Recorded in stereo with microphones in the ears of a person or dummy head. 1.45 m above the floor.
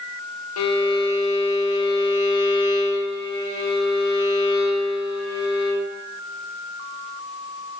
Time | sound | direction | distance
0.6 | a violin | 85° left | 1.0 m